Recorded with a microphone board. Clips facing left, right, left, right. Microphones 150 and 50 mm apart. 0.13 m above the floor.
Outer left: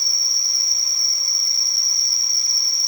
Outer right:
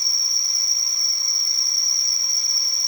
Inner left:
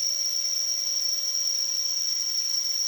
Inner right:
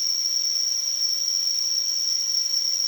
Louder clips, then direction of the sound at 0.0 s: Outer left 2 dB, inner right 3 dB; 5° left (ahead or behind).